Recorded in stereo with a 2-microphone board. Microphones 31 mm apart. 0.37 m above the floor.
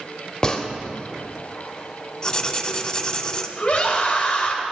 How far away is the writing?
About 0.7 m.